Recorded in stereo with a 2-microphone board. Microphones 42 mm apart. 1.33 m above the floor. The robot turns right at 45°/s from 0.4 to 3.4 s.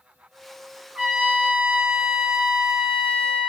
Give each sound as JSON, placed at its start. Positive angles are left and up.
{"t": 0.9, "sound": "a trumpet", "azimuth_deg": -160, "distance_m": 1.2}